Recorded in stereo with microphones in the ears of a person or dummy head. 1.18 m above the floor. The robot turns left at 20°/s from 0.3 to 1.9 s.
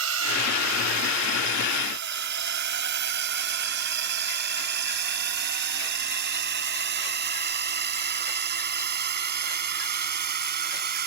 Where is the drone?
80° right; by 11.1 s 55° right (ahead or behind).